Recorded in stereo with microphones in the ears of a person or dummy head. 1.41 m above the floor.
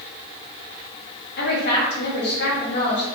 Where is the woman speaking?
55° left (ahead or behind), 1.1 m.